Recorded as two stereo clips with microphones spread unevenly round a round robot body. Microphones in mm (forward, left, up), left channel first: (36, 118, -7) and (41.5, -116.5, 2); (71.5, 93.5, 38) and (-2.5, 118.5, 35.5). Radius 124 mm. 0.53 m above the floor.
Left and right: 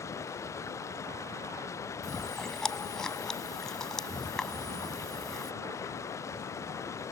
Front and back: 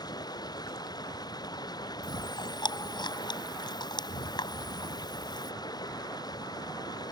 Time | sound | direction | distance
0.0 | running water | 15° left | ?
2.0 | chewing | 5° left | ?